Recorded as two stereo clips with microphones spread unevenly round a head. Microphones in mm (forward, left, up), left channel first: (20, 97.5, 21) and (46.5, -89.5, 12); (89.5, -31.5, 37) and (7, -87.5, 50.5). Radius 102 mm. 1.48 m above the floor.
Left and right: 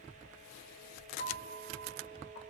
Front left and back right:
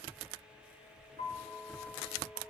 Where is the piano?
75° left, 1.6 m.